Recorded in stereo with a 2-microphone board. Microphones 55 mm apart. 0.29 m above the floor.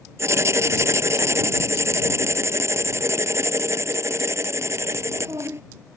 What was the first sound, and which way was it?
Writing, 55° right (ahead or behind).